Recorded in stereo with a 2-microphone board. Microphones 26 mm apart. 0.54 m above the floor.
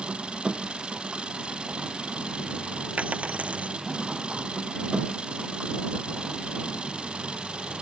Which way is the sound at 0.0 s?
45° right (ahead or behind).